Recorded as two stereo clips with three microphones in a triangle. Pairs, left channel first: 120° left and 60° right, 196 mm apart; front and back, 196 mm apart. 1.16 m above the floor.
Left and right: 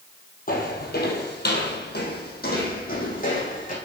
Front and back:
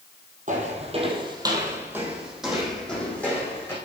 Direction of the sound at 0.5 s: 145° left.